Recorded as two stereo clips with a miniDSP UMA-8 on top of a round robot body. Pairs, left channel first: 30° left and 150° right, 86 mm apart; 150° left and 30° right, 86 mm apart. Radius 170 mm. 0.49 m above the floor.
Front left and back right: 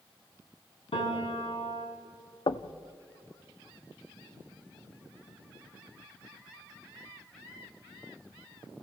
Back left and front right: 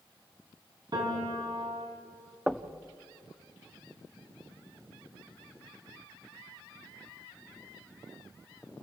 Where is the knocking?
55° left, 0.8 m.